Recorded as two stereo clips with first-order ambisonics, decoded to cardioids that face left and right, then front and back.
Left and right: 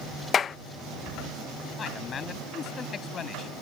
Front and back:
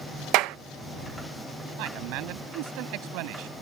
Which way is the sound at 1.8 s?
155° left.